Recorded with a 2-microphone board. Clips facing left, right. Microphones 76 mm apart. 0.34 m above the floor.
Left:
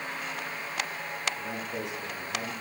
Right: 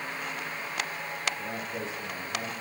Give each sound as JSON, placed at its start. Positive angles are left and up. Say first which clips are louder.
{"t": 1.4, "sound": "a man speaking", "louder": "even", "side_deg": 75, "distance_m": 4.5}